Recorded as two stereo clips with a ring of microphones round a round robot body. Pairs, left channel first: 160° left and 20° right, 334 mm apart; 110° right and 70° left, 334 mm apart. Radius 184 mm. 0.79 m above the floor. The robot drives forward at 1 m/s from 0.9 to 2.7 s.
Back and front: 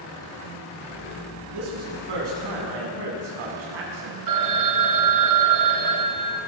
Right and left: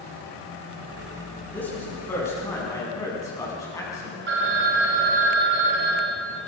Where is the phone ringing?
10° left, 3 m.